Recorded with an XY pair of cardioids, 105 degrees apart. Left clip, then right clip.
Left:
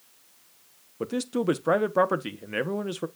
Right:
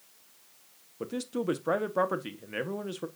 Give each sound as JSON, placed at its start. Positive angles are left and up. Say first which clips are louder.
{"t": 1.0, "sound": "a man speaking", "louder": "left 5 dB", "azimuth_deg": 30, "distance_m": 1.1}